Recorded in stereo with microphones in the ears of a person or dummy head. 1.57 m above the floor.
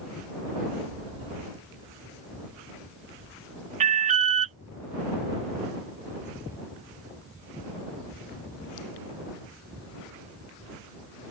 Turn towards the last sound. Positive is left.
turn(degrees=-35)  # may be behind; listen again after turning